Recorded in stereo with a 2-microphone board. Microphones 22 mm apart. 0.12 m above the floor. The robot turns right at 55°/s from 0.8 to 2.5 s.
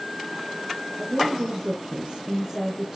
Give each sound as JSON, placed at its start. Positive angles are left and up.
{"t": 1.0, "sound": "a woman speaking", "azimuth_deg": -125, "distance_m": 3.0}